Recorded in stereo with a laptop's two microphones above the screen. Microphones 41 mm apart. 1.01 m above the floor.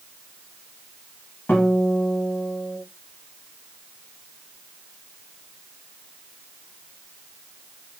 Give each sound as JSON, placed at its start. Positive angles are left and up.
{"t": 1.5, "sound": "a guitar", "side_deg": 55, "distance_m": 1.4}